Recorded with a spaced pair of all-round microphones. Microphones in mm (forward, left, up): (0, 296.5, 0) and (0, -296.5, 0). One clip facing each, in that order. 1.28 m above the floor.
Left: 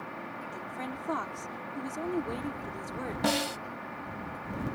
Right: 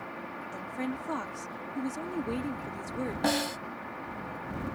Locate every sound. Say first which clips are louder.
0.5 s a woman speaking: right 7 dB; 50° right (ahead or behind)
3.2 s a snare drum: left 1 dB; 30° left (ahead or behind)